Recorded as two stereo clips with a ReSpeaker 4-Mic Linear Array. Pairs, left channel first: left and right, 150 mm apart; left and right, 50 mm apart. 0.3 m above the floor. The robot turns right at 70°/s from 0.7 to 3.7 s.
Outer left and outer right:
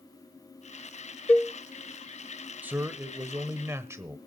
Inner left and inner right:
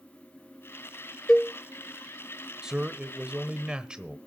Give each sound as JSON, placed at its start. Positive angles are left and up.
{"t": 1.3, "sound": "a cowbell", "side_deg": 10, "distance_m": 0.7}
{"t": 2.6, "sound": "a man speaking", "side_deg": -10, "distance_m": 1.0}